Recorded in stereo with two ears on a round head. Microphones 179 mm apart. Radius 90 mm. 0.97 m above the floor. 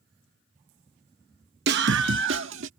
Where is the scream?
55° right (ahead or behind); by 2.7 s 65° right (ahead or behind).